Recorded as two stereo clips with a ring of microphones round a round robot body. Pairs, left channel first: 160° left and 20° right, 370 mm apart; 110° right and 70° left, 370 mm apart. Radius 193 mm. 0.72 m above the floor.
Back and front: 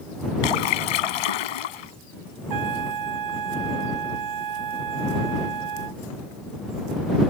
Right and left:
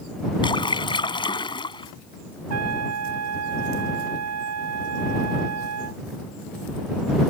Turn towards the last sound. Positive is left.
turn(degrees=15)